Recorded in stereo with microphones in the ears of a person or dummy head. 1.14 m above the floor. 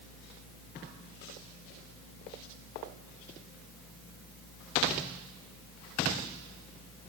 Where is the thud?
I don't hear a thud.